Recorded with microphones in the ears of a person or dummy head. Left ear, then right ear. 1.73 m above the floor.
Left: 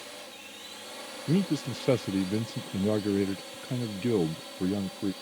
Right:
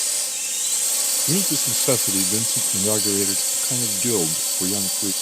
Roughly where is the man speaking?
Right.